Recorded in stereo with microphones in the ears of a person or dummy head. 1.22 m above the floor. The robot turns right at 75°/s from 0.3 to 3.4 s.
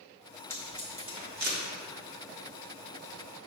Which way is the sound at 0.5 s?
15° left (ahead or behind).